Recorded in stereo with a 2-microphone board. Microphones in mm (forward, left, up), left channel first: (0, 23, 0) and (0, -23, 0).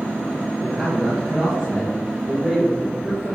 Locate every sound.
0.6 s a man speaking: centre (ahead or behind), 1.9 m